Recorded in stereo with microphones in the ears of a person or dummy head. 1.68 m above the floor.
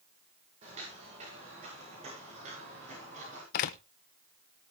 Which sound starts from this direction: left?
A door slam, at 3.5 s.